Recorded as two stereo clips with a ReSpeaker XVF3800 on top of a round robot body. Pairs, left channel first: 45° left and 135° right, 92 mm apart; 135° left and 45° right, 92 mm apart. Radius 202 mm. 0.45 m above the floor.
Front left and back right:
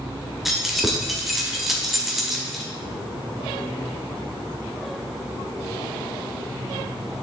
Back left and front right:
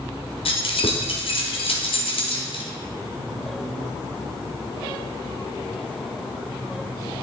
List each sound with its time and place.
0.5 s keys jangling: 135° left, 1.5 m